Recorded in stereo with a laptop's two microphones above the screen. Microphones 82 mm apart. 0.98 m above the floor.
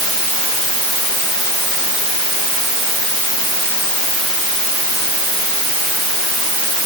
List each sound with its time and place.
Only background noise.